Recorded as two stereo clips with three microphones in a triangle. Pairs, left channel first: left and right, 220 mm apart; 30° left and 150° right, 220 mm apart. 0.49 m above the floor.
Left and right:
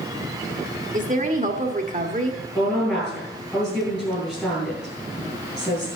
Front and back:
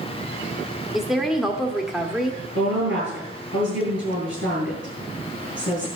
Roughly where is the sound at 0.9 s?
Ahead right.